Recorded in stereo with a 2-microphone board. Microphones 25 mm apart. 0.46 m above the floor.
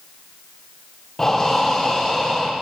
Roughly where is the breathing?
Centre.